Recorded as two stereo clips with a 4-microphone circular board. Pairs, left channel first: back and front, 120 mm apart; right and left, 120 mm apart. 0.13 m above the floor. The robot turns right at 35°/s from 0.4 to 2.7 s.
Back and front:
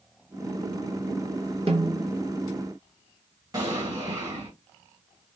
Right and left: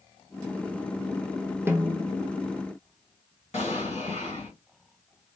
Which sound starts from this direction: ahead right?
An explosion, at 3.5 s.